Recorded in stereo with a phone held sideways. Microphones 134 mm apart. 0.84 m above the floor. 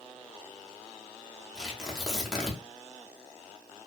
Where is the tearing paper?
5° left (ahead or behind), 0.9 m.